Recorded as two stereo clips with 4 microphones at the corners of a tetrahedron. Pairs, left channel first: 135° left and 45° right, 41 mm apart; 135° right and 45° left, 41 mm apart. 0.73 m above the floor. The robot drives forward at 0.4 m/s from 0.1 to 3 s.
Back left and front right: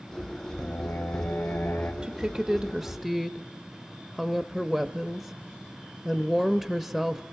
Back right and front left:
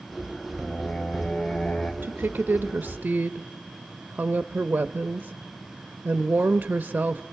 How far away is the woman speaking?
About 0.8 m.